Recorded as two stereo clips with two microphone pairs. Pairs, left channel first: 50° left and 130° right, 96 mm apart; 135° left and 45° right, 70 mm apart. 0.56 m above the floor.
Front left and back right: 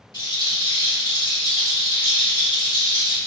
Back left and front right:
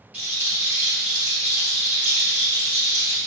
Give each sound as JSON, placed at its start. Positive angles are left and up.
{"t": 0.1, "sound": "a rattle", "azimuth_deg": 20, "distance_m": 1.4}